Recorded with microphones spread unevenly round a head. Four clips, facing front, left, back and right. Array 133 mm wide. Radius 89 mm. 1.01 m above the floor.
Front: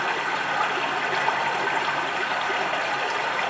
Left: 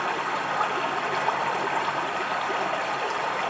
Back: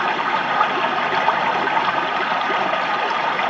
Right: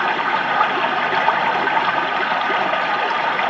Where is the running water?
95° right, 2.5 m.